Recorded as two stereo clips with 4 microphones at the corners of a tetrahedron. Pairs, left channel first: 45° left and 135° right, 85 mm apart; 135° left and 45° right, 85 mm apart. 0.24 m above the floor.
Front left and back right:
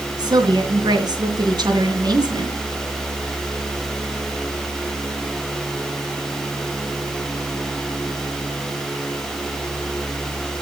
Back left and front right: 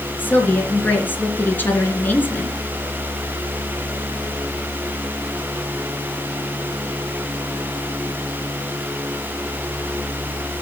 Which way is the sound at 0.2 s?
160° right.